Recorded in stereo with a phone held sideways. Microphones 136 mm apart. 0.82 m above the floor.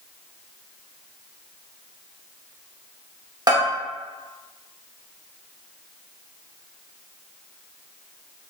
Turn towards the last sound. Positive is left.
turn(degrees=-35)  # may be behind; listen again after turning